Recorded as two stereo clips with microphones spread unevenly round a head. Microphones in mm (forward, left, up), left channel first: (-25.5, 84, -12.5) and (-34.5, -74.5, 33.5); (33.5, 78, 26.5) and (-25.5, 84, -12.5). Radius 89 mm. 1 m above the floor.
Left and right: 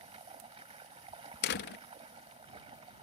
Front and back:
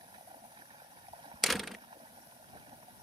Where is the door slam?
90° left.